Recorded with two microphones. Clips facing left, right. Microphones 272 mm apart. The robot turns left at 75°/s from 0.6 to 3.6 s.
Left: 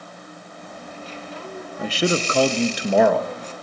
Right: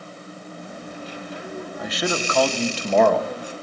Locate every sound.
1.8 s a man speaking: 105° left, 0.6 m; by 3.5 s 30° right, 0.6 m